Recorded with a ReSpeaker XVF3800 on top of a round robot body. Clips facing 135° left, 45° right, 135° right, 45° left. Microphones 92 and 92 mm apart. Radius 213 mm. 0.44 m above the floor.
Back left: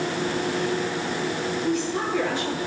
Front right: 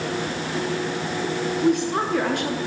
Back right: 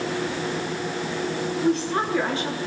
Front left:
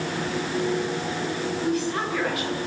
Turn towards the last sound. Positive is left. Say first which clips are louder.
# front right 6 dB, back right 4 dB
turn(degrees=-75)